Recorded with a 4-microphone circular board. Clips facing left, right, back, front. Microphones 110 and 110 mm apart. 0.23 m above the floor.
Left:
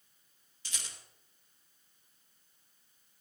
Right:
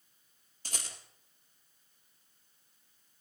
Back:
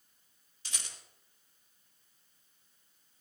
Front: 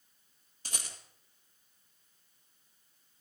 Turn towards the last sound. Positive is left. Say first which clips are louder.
# right 4 dB, front 3 dB
turn(degrees=-45)